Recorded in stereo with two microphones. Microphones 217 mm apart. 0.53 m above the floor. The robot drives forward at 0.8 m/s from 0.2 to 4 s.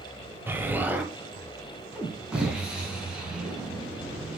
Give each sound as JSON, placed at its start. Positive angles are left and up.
{"t": 0.5, "sound": "an explosion", "side_deg": -10, "distance_m": 1.3}